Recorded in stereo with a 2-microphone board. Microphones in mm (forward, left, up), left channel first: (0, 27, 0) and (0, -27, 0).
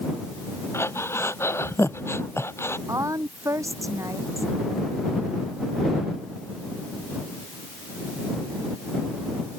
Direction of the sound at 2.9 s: 75° right (ahead or behind).